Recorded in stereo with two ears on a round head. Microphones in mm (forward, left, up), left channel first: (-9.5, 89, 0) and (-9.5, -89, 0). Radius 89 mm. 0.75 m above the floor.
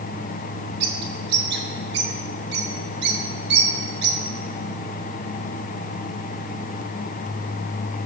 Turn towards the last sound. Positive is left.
turn(degrees=-60)  # may be behind; listen again after turning